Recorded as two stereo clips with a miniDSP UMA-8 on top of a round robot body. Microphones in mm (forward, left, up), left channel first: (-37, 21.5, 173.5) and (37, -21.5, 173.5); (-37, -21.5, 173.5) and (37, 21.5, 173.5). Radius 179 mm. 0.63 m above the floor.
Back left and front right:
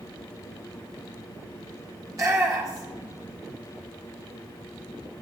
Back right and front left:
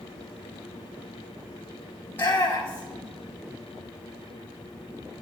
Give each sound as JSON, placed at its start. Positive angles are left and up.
{"t": 2.1, "sound": "a shout", "azimuth_deg": -85, "distance_m": 2.0}